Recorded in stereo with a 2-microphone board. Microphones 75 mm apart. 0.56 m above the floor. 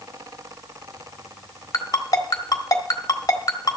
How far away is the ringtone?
About 1.3 m.